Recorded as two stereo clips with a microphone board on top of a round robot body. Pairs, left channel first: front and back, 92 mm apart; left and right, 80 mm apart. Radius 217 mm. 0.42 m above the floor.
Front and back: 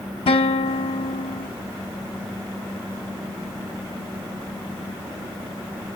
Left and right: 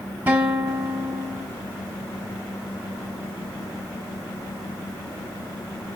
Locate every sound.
0.3 s a guitar: 20° right, 1.2 m